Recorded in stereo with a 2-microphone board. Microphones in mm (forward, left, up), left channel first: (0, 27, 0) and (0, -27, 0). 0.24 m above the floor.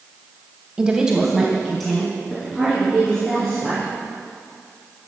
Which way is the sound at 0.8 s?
15° right (ahead or behind).